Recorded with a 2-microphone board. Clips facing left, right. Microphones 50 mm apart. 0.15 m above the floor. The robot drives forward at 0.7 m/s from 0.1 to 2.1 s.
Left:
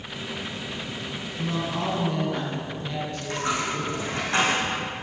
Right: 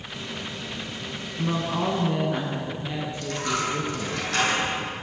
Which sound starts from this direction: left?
A dropped coin, at 3.2 s.